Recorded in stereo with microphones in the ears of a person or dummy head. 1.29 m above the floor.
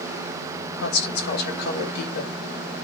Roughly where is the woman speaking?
Left.